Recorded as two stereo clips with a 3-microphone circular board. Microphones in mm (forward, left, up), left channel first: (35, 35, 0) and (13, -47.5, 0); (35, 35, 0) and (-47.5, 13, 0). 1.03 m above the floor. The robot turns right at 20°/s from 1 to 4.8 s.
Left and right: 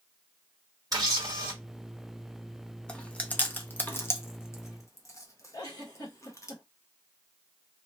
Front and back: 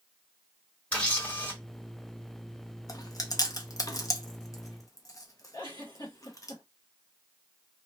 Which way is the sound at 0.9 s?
60° right.